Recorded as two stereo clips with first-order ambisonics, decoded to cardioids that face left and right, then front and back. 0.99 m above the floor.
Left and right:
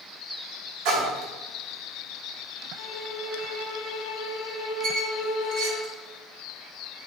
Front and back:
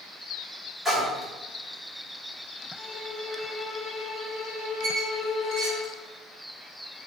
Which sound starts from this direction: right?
A splash, at 0.8 s.